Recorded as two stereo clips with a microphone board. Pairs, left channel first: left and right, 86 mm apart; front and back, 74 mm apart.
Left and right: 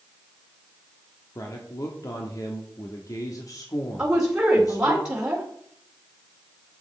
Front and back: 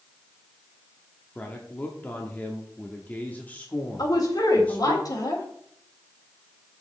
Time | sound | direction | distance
1.4 | a man speaking | 60° left | 1.2 m
4.0 | a woman speaking | 10° right | 2 m